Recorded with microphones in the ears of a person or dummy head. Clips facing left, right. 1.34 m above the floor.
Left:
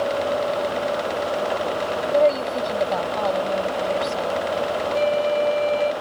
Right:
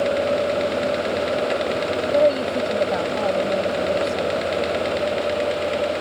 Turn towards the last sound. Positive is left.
turn(degrees=45)  # may be behind; listen again after turning